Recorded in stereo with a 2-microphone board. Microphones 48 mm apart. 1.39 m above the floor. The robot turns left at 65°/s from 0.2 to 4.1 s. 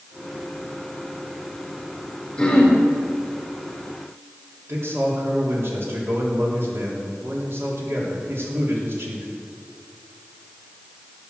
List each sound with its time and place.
2.4 s throat clearing: 25° left (ahead or behind), 4 m; by 2.8 s centre (ahead or behind), 4 m
4.7 s a man speaking: 55° right (ahead or behind), 4 m